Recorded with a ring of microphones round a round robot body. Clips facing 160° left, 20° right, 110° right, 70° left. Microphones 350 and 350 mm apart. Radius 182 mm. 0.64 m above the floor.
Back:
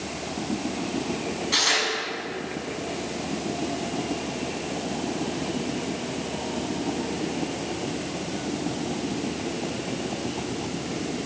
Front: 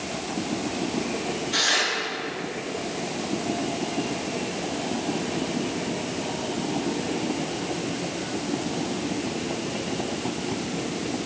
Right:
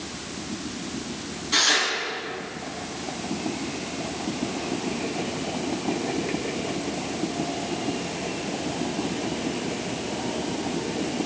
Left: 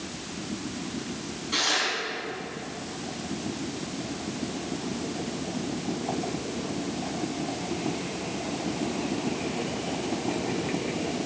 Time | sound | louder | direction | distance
1.5 | tearing paper | even, right 4 dB | 165° left | 6.5 m